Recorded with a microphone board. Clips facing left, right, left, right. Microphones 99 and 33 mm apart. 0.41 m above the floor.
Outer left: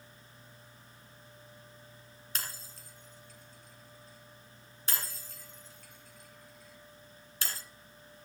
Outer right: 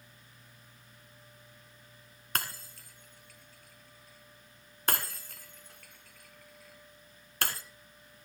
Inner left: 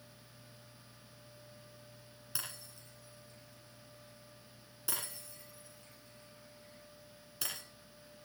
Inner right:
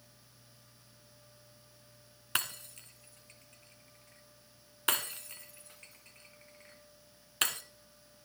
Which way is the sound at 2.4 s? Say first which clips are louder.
Outer right 7 dB, inner right 10 dB; 60° right (ahead or behind).